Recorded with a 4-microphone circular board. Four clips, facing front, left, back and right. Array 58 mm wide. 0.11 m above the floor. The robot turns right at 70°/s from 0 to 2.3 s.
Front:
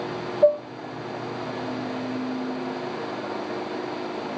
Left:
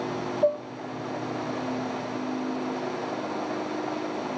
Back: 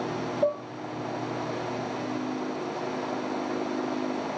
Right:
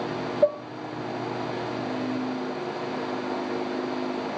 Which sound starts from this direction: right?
Dishes clattering, at 0.4 s.